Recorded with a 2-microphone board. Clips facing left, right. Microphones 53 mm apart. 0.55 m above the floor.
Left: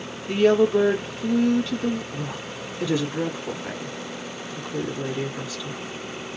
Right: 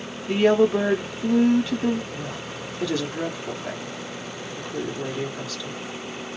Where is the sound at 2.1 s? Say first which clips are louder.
Left 1 dB; 15° left (ahead or behind), 1.3 m.